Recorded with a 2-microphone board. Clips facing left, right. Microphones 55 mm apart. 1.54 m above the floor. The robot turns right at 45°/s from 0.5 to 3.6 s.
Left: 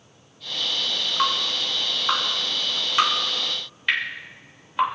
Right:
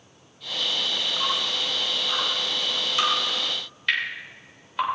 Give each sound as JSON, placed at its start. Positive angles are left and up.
{"t": 1.2, "sound": "dripping", "side_deg": 55, "distance_m": 3.5}